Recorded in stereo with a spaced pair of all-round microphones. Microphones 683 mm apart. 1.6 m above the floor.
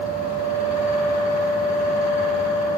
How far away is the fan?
About 1.5 m.